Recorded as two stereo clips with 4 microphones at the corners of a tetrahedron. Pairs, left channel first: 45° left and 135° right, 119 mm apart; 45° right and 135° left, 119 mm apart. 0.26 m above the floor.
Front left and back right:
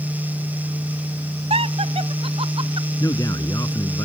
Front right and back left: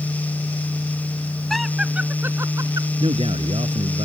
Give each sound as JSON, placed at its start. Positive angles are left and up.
{"t": 1.5, "sound": "laughter", "azimuth_deg": -135}
{"t": 3.0, "sound": "a man speaking", "azimuth_deg": 105}